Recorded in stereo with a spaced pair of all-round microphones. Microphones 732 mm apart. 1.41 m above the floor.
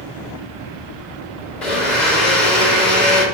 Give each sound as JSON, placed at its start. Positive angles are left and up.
{"t": 1.6, "sound": "a blender", "side_deg": 75, "distance_m": 3.0}